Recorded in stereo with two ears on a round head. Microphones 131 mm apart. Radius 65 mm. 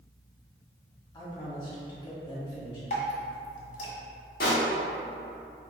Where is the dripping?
55° left (ahead or behind), 1.2 m.